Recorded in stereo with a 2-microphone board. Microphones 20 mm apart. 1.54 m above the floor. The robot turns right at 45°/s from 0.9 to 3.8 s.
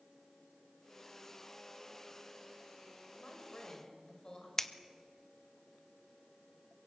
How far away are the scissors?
About 0.8 m.